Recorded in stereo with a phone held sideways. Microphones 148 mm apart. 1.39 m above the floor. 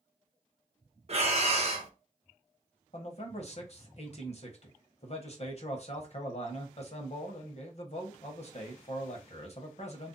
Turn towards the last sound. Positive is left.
turn(degrees=50)  # may be behind; listen again after turning